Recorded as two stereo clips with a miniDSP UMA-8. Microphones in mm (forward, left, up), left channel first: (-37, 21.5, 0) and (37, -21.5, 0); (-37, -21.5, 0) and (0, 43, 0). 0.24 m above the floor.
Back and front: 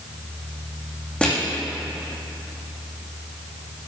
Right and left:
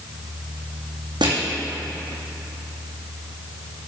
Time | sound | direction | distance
1.2 | crushing | 70° left | 2.5 m